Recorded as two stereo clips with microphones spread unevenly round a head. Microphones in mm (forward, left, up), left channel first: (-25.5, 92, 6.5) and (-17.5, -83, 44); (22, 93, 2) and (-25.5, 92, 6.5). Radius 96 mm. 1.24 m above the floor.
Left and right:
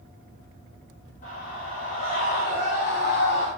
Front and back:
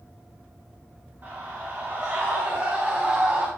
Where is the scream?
140° left, 4 m; by 3.5 s 115° left, 3 m.